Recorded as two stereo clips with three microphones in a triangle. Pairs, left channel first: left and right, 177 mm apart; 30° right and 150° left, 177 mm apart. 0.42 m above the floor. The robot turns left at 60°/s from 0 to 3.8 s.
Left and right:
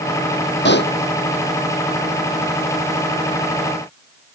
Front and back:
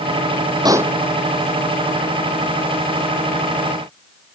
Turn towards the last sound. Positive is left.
turn(degrees=-105)